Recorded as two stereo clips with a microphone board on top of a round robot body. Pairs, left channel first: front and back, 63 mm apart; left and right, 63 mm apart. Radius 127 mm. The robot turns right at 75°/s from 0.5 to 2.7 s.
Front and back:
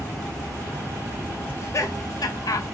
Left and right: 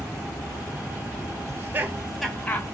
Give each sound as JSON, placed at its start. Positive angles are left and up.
{"t": 1.5, "sound": "laughter", "azimuth_deg": -55, "distance_m": 0.7}